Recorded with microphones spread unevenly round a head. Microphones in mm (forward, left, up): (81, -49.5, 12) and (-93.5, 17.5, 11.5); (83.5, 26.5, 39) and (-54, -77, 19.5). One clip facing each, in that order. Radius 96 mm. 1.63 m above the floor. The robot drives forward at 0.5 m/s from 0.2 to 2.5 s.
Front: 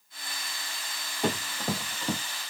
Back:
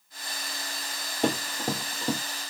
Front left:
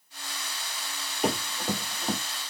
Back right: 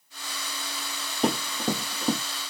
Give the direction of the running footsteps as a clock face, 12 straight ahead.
6 o'clock.